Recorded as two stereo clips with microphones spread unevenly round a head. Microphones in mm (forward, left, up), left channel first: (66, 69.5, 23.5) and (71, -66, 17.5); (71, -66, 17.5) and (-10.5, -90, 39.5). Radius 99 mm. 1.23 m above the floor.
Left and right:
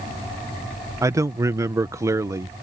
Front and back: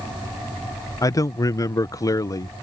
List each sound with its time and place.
1.0 s a man speaking: 20° right